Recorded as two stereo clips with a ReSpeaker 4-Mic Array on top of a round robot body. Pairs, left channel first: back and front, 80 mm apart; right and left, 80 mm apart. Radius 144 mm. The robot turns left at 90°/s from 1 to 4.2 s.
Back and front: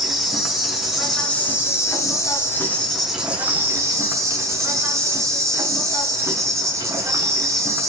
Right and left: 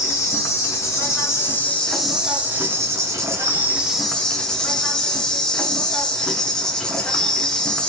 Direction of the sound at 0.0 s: 85° right.